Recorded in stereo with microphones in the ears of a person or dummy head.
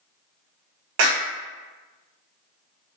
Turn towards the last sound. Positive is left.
turn(degrees=-70)  # may be behind; listen again after turning